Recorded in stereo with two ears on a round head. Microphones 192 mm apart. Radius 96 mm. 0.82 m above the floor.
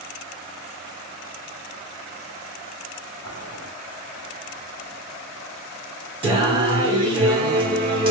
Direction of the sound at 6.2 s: 25° right (ahead or behind).